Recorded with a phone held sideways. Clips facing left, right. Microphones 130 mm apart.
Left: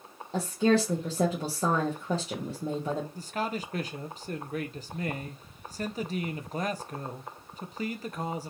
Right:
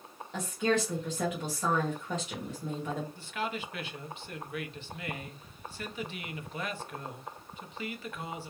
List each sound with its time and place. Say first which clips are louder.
0.3 s a woman speaking: left 5 dB; 35° left (ahead or behind), 0.8 m
3.1 s a man speaking: left 3 dB; 40° left (ahead or behind), 0.5 m